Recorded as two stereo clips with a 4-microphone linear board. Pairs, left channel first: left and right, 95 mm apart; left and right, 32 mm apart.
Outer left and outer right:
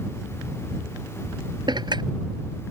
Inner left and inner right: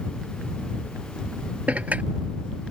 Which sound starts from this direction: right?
Dishes clattering, at 1.7 s.